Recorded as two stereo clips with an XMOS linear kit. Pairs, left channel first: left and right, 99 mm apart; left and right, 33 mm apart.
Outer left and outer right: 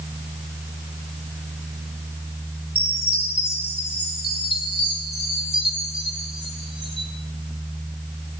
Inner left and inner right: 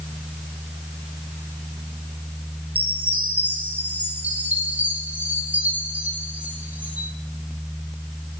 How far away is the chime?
About 3.5 m.